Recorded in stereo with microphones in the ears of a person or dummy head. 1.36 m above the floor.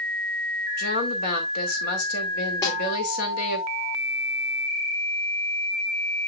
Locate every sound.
0.8 s a woman speaking: 45° left (ahead or behind), 2.5 m
2.6 s a snare drum: 25° left (ahead or behind), 3 m